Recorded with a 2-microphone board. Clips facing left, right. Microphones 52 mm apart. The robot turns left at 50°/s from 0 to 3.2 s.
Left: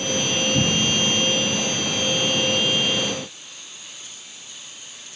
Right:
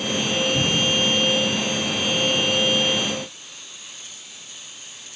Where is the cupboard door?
30° left (ahead or behind), 0.8 m.